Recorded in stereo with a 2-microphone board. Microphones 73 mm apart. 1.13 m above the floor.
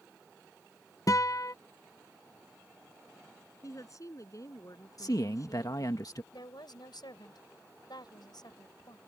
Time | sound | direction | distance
1.1 | a guitar | 50° left (ahead or behind) | ?
3.6 | a woman speaking | 45° left (ahead or behind) | ?
5.0 | a man speaking | 55° left (ahead or behind) | ?
6.3 | a woman speaking | 75° left (ahead or behind) | ?